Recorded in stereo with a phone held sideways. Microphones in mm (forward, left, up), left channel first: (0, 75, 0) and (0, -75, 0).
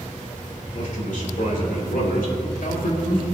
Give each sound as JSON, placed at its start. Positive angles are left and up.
{"t": 0.7, "sound": "a man speaking", "side_deg": 60, "distance_m": 3.0}